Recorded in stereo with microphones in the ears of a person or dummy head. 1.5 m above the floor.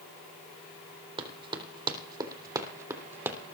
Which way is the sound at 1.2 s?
35° right (ahead or behind).